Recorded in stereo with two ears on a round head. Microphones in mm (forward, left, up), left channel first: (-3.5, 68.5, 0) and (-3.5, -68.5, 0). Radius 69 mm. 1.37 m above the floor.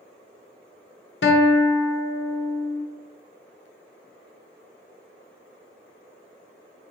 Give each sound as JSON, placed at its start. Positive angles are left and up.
{"t": 1.2, "sound": "a guitar", "side_deg": 80, "distance_m": 0.7}